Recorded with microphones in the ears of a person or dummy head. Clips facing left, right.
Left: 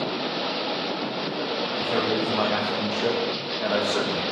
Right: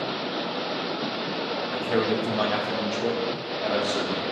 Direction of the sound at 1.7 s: 25° right (ahead or behind).